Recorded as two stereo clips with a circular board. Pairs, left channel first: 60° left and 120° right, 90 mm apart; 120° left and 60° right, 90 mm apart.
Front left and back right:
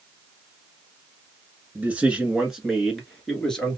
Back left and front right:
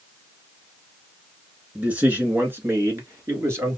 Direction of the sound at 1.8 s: 95° right.